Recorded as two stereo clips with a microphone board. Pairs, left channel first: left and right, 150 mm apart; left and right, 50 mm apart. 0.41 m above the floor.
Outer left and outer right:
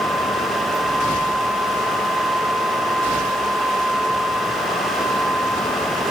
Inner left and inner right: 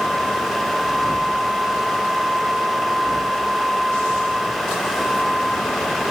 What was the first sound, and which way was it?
Only background noise.